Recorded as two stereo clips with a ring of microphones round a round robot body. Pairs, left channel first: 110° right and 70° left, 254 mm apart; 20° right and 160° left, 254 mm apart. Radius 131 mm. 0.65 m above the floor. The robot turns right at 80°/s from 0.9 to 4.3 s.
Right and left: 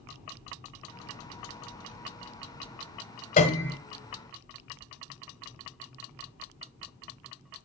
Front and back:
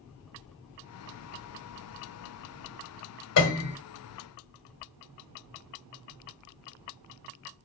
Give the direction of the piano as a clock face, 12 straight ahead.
2 o'clock.